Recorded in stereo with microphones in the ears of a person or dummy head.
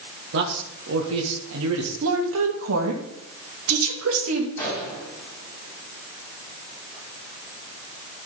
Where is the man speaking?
75° right (ahead or behind), 2.0 m.